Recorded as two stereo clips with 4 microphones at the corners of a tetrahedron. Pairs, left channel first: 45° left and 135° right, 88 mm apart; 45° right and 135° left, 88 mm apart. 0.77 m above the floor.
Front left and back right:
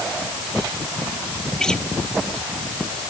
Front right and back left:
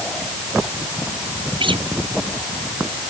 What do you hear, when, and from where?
1.6 s a guitar: 130° left